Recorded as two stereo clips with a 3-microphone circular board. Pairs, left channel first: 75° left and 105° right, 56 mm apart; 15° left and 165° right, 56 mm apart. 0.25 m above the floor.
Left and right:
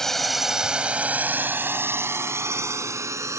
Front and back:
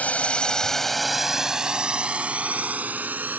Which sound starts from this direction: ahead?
A drone, at 0.0 s.